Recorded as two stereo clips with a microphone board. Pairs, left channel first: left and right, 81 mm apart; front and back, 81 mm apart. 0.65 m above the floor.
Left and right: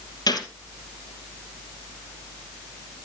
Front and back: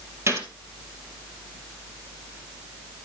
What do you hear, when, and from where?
0.3 s a gunshot: 125° left, 3 m